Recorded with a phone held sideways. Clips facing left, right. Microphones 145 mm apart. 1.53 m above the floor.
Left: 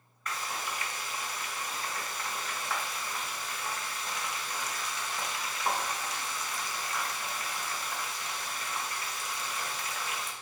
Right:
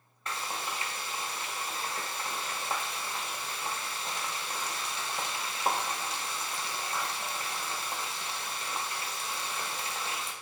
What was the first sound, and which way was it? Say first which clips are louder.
Frying: even; 30° right (ahead or behind).